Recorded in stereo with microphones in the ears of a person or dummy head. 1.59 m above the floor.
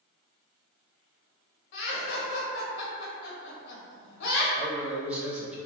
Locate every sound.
1.7 s laughter: 60° left (ahead or behind), 0.9 m
4.6 s a man speaking: 5° right (ahead or behind), 0.8 m